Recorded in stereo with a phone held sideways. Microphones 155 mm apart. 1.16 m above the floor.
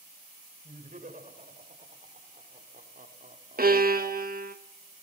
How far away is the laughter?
About 6 m.